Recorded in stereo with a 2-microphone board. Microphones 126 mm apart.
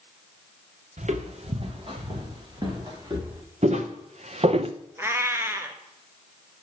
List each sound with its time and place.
1.0 s footsteps: 70° right (ahead or behind), 1.4 m; by 3.4 s 30° right (ahead or behind), 4 m
3.6 s footsteps: 65° right (ahead or behind), 1.6 m; by 4.7 s 50° right (ahead or behind), 0.5 m
5.0 s a cat meowing: 20° right (ahead or behind), 0.8 m